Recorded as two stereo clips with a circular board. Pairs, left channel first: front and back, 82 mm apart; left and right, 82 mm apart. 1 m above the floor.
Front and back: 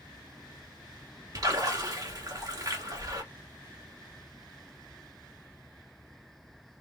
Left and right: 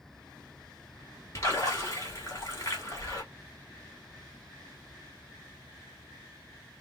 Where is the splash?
140° left, 2 m.